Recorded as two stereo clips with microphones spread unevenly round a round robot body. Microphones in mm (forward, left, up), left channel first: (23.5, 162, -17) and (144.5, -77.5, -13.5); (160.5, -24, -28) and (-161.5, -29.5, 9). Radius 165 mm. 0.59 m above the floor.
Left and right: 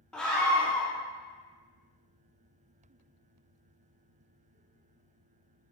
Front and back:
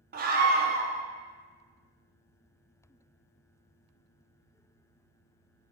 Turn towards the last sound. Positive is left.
turn(degrees=-165)